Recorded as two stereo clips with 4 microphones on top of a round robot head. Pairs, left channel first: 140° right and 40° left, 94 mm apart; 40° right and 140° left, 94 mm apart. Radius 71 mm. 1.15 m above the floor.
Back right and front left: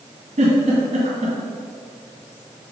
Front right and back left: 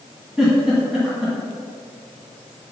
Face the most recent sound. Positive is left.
turn(degrees=50)